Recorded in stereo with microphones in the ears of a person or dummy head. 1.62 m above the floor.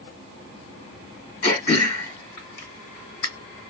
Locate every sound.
1.4 s throat clearing: 55° left (ahead or behind), 1.9 m